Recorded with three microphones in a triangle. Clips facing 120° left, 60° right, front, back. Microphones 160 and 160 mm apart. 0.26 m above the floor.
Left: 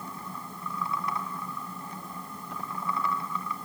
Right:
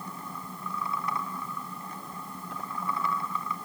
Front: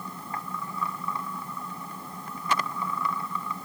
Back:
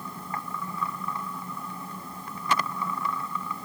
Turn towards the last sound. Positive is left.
No sound to turn to.